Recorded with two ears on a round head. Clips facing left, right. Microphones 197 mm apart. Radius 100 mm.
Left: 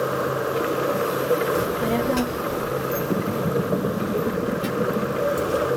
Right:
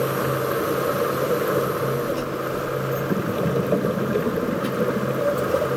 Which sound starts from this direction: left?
A child speaking, at 1.6 s.